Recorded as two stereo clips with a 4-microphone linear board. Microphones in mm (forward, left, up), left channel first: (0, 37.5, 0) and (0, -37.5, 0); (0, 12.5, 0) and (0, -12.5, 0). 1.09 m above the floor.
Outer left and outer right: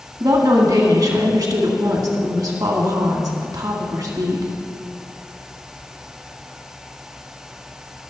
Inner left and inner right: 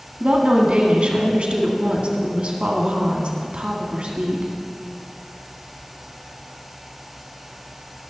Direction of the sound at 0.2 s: 60° right (ahead or behind).